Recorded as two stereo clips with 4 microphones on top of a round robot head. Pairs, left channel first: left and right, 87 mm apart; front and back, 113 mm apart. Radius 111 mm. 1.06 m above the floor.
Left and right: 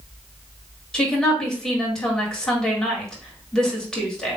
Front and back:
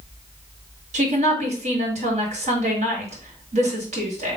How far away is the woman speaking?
About 2.5 m.